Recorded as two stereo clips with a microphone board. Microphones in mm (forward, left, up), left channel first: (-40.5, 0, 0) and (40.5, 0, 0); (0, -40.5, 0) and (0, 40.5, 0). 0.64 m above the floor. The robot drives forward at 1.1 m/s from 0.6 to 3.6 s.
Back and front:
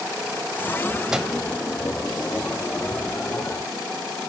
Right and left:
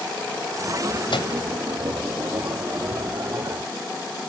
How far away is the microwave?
About 2.5 m.